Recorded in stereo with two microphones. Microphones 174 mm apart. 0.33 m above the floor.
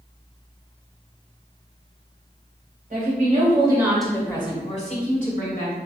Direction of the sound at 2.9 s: 50° right (ahead or behind).